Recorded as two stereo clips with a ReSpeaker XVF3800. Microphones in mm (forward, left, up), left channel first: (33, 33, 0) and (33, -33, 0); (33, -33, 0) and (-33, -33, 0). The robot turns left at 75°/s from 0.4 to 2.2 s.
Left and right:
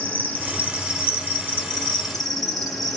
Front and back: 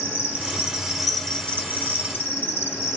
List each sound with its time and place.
0.0 s an insect: 135° left, 1.5 m; by 3.0 s straight ahead, 1.5 m